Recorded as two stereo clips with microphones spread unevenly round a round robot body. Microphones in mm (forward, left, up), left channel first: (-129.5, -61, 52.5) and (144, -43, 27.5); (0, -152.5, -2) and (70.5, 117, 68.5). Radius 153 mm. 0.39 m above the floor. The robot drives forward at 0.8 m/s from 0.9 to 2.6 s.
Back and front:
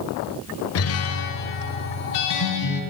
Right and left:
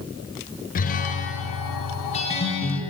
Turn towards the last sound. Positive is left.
turn(degrees=-170)